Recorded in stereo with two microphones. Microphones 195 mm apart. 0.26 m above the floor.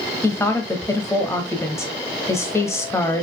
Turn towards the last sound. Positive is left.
turn(degrees=15)  # may be behind; listen again after turning